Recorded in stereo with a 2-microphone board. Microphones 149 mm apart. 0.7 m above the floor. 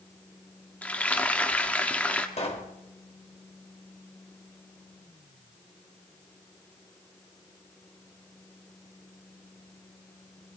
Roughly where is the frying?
Centre.